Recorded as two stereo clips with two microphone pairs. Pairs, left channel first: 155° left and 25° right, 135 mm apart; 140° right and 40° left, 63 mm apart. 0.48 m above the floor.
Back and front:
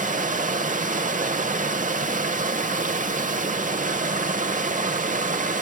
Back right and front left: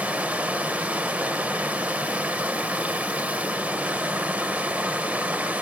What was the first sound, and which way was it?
Running water, 25° right.